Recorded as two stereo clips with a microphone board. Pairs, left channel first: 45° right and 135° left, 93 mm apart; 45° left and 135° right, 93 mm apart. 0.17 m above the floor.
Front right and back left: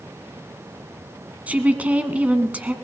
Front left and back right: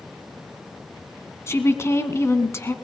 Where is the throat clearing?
No throat clearing in this recording.